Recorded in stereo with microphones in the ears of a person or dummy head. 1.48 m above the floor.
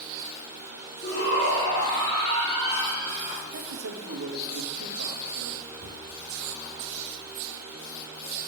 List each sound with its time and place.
1.0 s a shout: 45° left (ahead or behind), 4 m; by 3.4 s 10° left (ahead or behind), 4.5 m
3.5 s a man speaking: 60° right (ahead or behind), 1.3 m
5.8 s a thud: 50° right (ahead or behind), 1.8 m